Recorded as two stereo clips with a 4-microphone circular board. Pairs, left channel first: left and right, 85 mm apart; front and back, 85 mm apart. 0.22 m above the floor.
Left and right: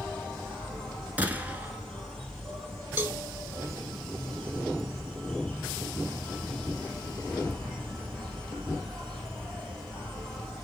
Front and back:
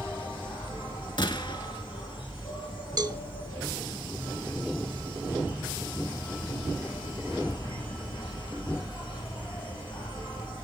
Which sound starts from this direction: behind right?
A cowbell, at 3.0 s.